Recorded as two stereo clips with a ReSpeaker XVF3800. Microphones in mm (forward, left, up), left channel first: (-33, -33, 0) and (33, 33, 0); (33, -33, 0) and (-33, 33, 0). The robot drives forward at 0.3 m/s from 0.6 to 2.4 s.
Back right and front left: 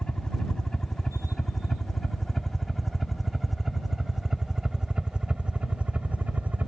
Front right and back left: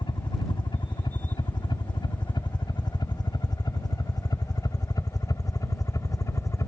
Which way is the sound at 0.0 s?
55° right.